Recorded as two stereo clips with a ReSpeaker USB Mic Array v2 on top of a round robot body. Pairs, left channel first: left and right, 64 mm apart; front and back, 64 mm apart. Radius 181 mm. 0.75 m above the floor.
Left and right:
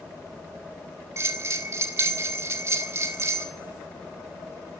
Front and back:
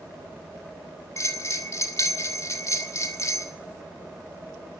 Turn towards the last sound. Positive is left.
turn(degrees=-45)